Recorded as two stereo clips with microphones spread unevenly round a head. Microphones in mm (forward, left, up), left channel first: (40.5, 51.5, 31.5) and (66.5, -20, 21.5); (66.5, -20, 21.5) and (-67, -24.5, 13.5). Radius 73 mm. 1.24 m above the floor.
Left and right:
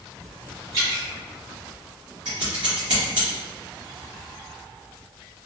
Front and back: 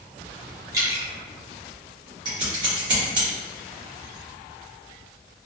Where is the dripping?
125° right, 0.8 m.